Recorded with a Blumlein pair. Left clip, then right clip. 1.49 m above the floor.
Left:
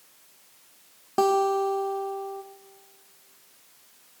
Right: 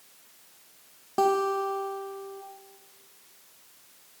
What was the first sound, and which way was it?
A guitar, 10° left.